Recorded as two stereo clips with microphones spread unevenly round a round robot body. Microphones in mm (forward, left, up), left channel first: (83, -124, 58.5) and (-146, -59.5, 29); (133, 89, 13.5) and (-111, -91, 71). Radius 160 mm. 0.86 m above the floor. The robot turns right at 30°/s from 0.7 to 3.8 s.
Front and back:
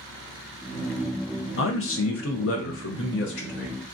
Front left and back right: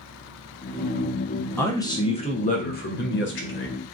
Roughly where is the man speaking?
Ahead right.